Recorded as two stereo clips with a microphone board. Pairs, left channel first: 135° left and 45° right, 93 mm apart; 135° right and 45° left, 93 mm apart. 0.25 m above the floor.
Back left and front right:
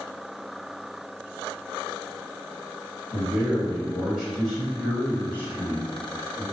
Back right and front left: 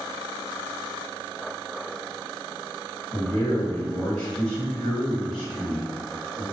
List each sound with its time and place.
3.1 s a man speaking: 75° right, 1.6 m; by 6.4 s 125° left, 1.7 m